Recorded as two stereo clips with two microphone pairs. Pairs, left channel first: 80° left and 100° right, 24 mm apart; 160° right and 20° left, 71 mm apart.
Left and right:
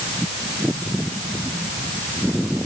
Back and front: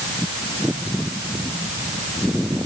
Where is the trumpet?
No trumpet in this recording.